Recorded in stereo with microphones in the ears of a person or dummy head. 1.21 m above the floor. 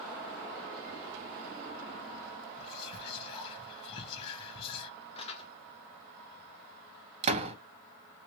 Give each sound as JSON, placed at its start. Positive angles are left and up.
{"t": 2.6, "sound": "whispering", "side_deg": 35, "distance_m": 0.9}
{"t": 5.2, "sound": "crumpling", "side_deg": 30, "distance_m": 0.8}
{"t": 7.2, "sound": "a door slam", "side_deg": -35, "distance_m": 0.7}